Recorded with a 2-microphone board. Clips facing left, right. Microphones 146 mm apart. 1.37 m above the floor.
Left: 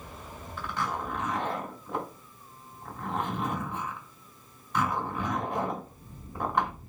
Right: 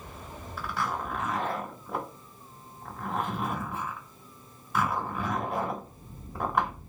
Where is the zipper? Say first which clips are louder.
Right 1 dB; 5° right (ahead or behind), 1.7 m.